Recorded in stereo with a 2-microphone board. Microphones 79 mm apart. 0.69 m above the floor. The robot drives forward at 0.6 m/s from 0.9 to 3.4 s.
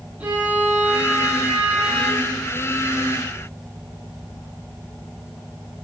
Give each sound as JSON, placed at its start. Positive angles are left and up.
{"t": 0.2, "sound": "a violin", "side_deg": -15, "distance_m": 7.0}